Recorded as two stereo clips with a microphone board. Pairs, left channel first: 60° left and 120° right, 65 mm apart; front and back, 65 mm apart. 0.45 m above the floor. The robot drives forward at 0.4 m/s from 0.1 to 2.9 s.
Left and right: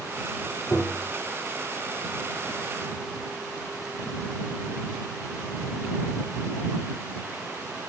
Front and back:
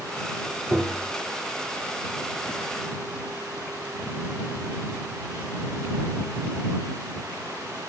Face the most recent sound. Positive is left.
turn(degrees=155)